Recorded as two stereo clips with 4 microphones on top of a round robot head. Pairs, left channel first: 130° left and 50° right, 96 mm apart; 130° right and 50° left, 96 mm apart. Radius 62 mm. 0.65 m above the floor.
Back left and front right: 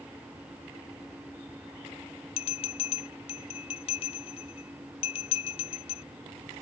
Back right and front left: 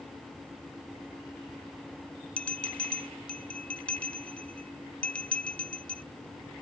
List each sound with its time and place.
2.4 s a bell: 150° left